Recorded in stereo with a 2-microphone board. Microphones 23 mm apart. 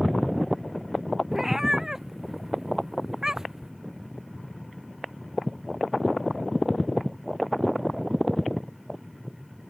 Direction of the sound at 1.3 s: 15° right (ahead or behind).